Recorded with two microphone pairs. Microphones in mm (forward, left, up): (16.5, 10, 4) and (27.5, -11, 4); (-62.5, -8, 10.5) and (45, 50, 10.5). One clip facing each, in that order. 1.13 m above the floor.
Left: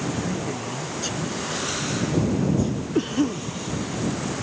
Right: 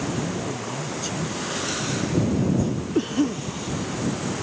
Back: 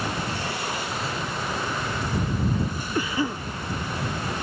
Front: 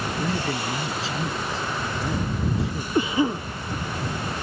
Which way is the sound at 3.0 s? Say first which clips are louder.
Even, front 5 dB; 35° left.